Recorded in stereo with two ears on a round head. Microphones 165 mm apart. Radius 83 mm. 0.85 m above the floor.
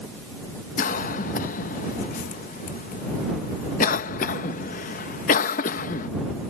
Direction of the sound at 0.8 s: 45° left (ahead or behind).